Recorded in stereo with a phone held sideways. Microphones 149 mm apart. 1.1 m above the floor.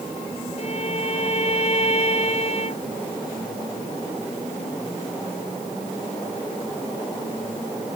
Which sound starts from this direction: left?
A violin, at 0.6 s.